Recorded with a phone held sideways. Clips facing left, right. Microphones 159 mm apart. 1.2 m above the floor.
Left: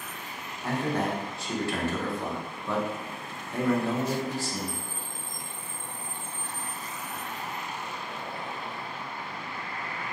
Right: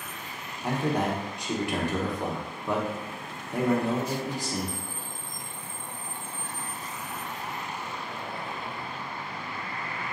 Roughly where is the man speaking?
Centre.